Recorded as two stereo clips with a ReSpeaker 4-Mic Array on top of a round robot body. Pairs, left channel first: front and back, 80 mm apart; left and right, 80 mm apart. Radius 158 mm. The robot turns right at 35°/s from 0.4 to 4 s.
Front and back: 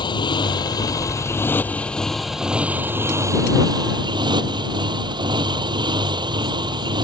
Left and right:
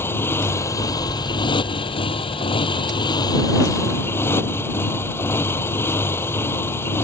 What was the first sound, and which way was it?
A motorcycle, 25° left.